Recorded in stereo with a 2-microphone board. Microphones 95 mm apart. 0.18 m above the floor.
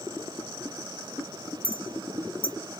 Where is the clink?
20° right (ahead or behind), 0.7 m.